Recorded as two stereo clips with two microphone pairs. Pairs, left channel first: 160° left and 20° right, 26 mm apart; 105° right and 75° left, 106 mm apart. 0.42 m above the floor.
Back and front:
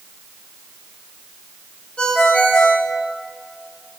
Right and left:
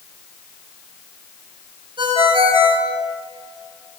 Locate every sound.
2.0 s a ringtone: 115° left, 4 m